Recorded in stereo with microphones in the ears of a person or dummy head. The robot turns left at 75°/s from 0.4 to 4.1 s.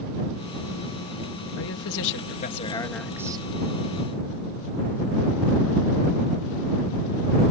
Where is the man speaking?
110° left; by 3.5 s 30° right.